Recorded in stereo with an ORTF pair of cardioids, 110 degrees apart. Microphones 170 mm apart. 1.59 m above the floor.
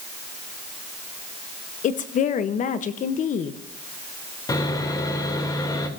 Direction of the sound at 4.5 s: 20° left.